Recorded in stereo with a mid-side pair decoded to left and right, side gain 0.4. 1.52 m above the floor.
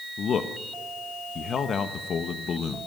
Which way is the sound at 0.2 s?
60° left.